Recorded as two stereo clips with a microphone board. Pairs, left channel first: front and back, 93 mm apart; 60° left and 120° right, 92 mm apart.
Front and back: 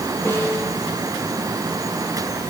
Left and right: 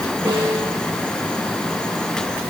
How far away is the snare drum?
About 9.5 m.